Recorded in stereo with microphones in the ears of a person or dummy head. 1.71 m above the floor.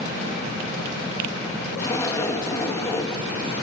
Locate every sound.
1.8 s a zipper: 15° left (ahead or behind), 3 m